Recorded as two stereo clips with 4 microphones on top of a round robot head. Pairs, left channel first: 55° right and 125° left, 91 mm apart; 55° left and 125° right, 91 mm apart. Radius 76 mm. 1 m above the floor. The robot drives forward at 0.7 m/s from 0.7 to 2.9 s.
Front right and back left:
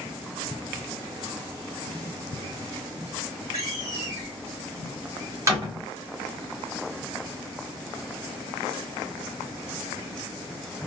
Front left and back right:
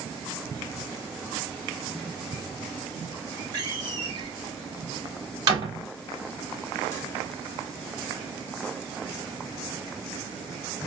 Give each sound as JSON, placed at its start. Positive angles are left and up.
{"t": 3.5, "sound": "a door slam", "azimuth_deg": -175, "distance_m": 3.0}